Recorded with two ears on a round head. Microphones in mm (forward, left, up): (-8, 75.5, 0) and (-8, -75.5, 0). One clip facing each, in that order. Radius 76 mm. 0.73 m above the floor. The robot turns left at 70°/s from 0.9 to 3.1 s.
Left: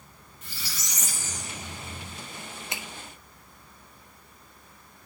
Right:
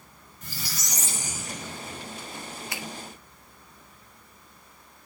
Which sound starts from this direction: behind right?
A squeak, at 0.4 s.